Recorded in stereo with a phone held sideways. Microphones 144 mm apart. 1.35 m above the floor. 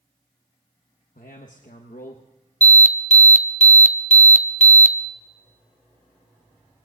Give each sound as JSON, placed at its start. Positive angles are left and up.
{"t": 1.1, "sound": "a man speaking", "side_deg": 75, "distance_m": 1.0}
{"t": 2.6, "sound": "an alarm", "side_deg": 55, "distance_m": 0.8}